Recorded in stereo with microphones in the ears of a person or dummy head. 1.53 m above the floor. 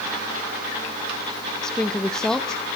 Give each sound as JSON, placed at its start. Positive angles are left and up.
{"t": 1.6, "sound": "a woman speaking", "side_deg": 5, "distance_m": 0.7}